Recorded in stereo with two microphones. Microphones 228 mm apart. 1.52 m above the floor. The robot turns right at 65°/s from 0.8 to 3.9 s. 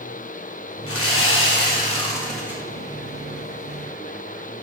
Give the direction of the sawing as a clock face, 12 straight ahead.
9 o'clock.